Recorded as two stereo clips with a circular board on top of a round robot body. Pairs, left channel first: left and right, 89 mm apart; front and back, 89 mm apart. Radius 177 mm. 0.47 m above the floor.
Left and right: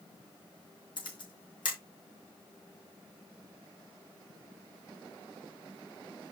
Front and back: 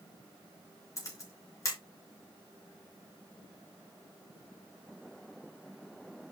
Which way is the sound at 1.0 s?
55° left.